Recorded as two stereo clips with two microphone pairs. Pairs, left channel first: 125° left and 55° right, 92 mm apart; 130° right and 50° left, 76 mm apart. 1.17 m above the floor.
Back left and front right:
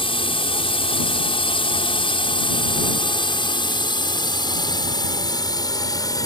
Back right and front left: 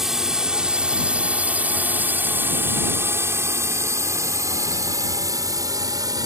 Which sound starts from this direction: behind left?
A drone, at 0.0 s.